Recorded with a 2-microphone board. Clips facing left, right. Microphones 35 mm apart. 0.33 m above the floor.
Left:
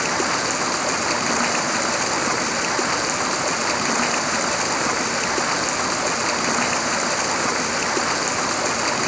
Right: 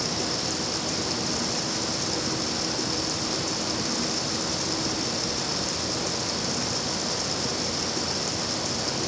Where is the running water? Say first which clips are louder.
Left 8 dB; 60° left (ahead or behind).